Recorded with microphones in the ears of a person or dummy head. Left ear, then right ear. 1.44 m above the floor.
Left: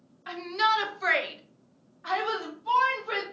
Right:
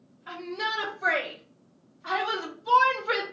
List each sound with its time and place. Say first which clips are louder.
0.3 s a shout: left 6 dB; 75° left (ahead or behind), 1.1 m; by 3.2 s 20° right (ahead or behind), 1.0 m